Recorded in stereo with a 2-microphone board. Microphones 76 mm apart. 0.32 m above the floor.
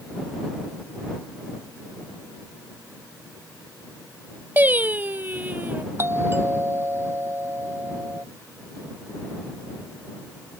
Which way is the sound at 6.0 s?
35° right (ahead or behind).